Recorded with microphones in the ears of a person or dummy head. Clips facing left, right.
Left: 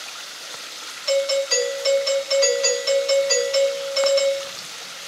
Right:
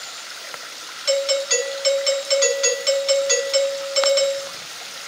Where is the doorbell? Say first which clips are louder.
Even; 30° right (ahead or behind), 0.9 m.